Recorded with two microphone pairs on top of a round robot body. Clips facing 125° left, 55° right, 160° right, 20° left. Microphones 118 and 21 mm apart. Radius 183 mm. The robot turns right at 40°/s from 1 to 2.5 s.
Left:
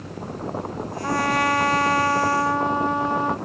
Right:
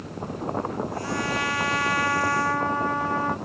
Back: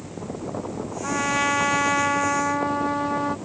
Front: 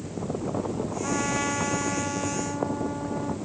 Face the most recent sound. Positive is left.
turn(degrees=-170)